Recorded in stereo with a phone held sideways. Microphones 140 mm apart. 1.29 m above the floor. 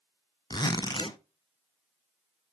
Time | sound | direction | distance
0.5 | a zipper | 30° left (ahead or behind) | 0.7 m